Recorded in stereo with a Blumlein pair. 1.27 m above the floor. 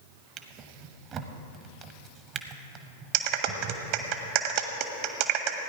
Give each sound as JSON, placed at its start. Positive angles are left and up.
{"t": 0.4, "sound": "a drawer", "azimuth_deg": -30, "distance_m": 1.0}
{"t": 3.1, "sound": "a clap", "azimuth_deg": -45, "distance_m": 1.1}